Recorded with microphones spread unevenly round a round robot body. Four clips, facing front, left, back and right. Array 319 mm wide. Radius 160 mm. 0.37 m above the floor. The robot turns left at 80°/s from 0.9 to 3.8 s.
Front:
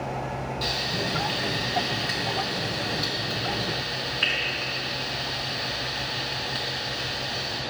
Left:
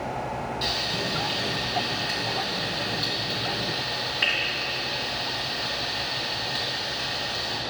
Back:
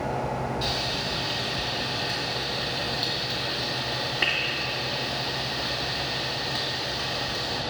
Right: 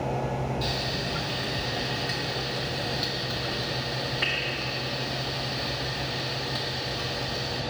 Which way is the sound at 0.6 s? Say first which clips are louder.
Left 1 dB, even; 55° left.